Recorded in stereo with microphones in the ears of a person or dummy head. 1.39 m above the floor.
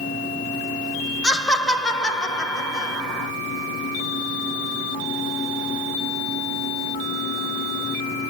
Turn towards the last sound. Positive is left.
turn(degrees=0)  # may be behind; listen again after turning